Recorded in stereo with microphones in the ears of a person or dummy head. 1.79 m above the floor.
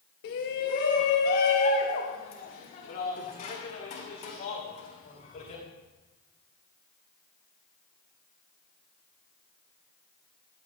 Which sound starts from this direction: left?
A shout, at 0.2 s.